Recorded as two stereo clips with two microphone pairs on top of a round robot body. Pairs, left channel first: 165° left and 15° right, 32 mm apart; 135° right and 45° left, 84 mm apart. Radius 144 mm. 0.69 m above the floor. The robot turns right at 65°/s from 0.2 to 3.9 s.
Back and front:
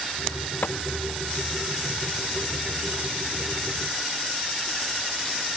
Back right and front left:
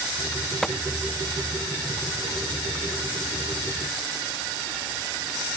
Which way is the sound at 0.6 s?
140° left.